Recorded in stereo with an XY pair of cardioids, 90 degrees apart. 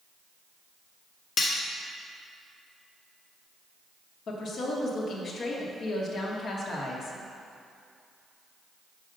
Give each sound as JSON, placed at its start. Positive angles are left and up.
{"t": 1.4, "sound": "cutlery clinking", "azimuth_deg": 50, "distance_m": 1.1}
{"t": 4.3, "sound": "a woman speaking", "azimuth_deg": 65, "distance_m": 1.3}